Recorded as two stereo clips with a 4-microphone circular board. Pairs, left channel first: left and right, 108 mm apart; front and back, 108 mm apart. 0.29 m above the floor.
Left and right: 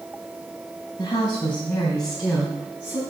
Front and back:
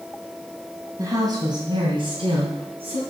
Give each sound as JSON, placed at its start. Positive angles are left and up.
{"t": 1.0, "sound": "a woman speaking", "azimuth_deg": 130, "distance_m": 2.0}